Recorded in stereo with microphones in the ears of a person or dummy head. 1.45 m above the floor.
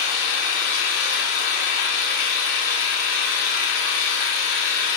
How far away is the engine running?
About 0.9 m.